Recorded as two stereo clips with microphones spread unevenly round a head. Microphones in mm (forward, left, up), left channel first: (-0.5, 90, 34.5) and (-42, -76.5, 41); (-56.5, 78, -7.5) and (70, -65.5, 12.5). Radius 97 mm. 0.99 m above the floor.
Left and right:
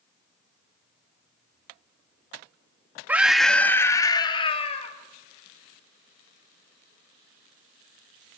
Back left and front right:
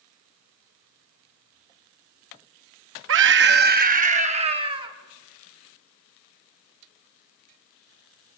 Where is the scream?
25° right, 1.3 m; by 4.9 s 20° left, 2 m.